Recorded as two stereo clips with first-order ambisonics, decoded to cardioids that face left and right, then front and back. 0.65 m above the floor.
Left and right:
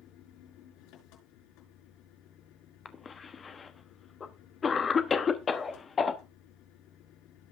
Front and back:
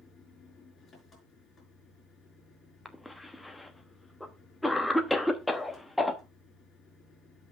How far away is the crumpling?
No crumpling in this recording.